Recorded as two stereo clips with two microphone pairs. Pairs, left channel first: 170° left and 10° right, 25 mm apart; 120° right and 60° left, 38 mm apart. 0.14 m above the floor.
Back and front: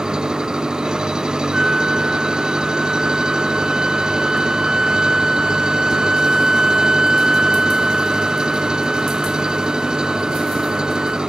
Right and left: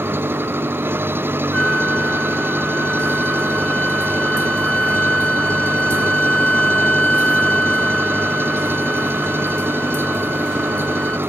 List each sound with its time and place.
0.0 s an engine running: 50° left
1.5 s a flute: 65° right